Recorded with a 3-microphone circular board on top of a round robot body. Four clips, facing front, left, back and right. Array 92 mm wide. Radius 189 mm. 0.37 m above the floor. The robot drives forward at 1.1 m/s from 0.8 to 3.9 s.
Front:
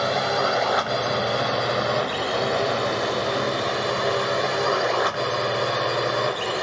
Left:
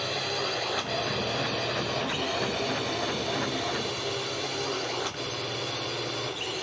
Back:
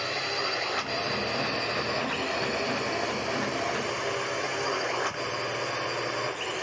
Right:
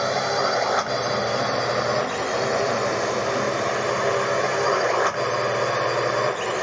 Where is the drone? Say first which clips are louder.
Right 10 dB, front 10 dB; 45° right; by 6.6 s 55° right.